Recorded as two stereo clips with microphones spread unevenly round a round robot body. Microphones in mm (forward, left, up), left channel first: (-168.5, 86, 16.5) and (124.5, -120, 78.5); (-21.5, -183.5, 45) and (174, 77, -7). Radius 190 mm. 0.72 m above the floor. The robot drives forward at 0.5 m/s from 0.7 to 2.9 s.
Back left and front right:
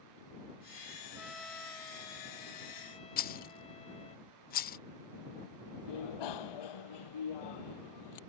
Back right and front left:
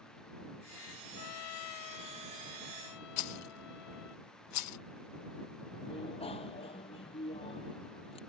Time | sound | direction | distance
1.1 | a trumpet | 120° right | ?
3.2 | a rattle | 165° right | ?
5.9 | a bicycle bell | 155° left | ?